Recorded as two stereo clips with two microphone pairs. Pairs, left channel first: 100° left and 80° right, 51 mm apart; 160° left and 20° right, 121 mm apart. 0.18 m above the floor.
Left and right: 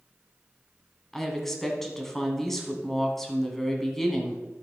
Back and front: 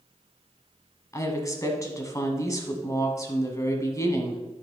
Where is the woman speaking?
175° left, 1.4 m.